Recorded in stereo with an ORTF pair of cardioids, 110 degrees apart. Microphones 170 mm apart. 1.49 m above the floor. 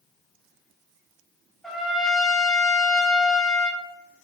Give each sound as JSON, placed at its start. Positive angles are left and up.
{"t": 1.6, "sound": "a trumpet", "azimuth_deg": 0, "distance_m": 0.5}